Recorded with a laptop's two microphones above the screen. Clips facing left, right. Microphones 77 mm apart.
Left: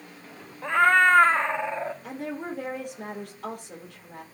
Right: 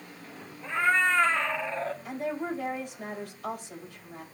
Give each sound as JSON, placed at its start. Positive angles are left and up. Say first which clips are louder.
{"t": 0.6, "sound": "a cat meowing", "louder": "left 6 dB", "side_deg": 70, "distance_m": 0.8}
{"t": 2.0, "sound": "a woman speaking", "louder": "right 1 dB", "side_deg": 75, "distance_m": 4.0}